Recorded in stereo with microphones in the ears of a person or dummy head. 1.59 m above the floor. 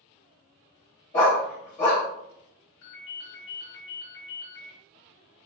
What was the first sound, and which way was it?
A dog barking, 15° left (ahead or behind).